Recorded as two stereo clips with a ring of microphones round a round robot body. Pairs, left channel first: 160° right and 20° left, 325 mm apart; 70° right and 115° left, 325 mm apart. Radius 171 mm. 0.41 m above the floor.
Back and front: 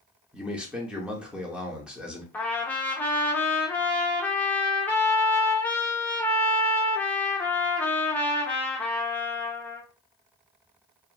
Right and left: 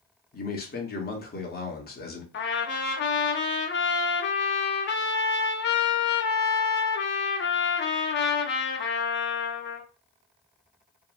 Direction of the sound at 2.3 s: 75° right.